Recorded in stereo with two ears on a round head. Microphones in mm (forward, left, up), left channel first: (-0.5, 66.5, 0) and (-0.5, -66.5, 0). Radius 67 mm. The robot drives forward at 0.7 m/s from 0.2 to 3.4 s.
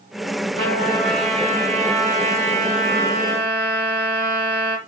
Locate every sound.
0.6 s a trumpet: 45° right (ahead or behind), 5 m; by 4.8 s 65° right (ahead or behind), 4 m